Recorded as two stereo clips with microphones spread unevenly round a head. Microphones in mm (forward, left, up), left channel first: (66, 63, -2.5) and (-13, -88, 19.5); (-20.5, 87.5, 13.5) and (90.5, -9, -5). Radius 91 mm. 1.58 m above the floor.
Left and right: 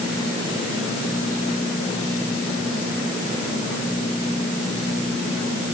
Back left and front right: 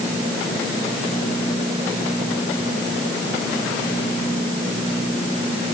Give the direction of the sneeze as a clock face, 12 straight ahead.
I don't hear a sneeze.